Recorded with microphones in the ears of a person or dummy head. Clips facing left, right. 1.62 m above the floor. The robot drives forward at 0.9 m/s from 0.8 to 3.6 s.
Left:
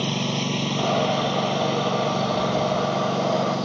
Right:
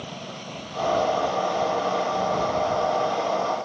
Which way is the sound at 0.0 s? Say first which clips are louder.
Left 11 dB; 85° left.